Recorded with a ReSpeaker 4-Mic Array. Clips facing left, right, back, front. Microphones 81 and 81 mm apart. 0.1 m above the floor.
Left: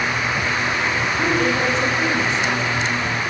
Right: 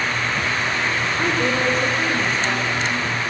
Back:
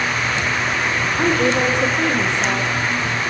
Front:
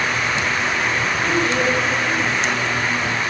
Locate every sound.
1.2 s a woman speaking: 175° right, 8 m